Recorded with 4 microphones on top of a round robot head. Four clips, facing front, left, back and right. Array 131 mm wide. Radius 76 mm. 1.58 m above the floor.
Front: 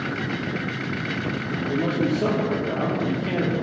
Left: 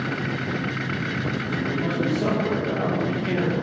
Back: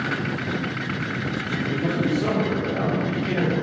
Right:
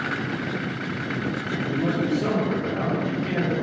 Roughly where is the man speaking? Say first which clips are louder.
Right 2 dB, front 1 dB; ahead.